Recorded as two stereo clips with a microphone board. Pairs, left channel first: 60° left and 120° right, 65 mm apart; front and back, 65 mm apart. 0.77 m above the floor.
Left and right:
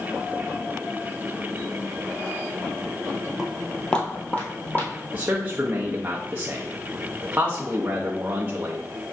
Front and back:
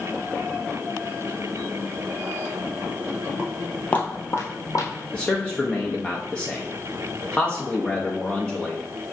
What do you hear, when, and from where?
3.4 s footsteps: straight behind, 0.8 m; by 4.9 s 5° left, 1.5 m
5.1 s a man speaking: 70° right, 0.5 m